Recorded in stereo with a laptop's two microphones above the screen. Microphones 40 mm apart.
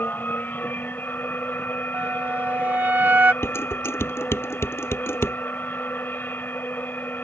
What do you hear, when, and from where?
0.0 s a machine running: 50° left (ahead or behind)
1.9 s a flute: 45° right (ahead or behind)
3.4 s dishes clattering: 75° left (ahead or behind)